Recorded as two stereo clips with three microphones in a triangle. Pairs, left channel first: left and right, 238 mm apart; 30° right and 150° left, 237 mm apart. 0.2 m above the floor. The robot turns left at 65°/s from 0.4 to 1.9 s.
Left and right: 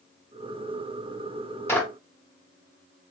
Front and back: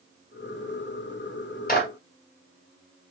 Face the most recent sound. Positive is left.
turn(degrees=0)